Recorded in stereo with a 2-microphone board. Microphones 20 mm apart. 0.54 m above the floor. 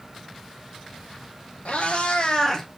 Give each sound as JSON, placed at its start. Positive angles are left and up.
{"t": 1.6, "sound": "a cat meowing", "side_deg": 70, "distance_m": 1.6}